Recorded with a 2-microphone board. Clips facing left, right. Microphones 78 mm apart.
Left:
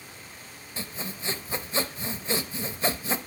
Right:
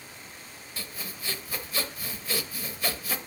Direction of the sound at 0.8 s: 30° left (ahead or behind).